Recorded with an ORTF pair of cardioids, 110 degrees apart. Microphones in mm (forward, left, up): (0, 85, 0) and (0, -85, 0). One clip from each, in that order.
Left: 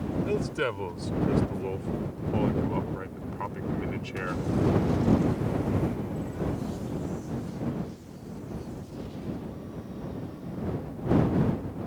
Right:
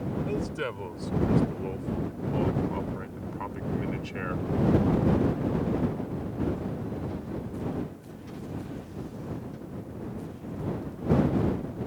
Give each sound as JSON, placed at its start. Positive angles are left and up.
{"t": 0.3, "sound": "a man speaking", "azimuth_deg": 25}